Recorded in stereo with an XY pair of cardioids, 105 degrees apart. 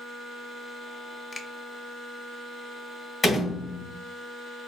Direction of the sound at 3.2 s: 35° left.